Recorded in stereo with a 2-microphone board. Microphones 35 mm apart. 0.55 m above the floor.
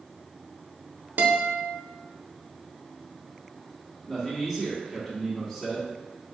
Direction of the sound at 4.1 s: 15° left (ahead or behind).